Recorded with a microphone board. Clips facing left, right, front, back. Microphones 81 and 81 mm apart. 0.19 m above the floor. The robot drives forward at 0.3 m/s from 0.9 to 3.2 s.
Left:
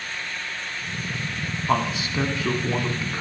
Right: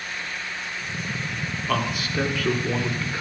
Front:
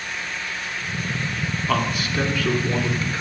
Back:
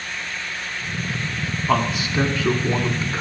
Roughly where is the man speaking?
Behind left.